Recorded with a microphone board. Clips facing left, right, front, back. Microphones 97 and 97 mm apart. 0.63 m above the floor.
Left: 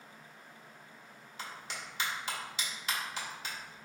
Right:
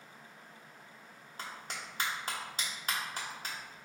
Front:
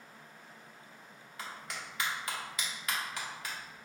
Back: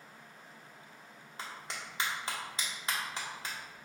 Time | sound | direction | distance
1.4 | a clap | 125° right | 1.2 m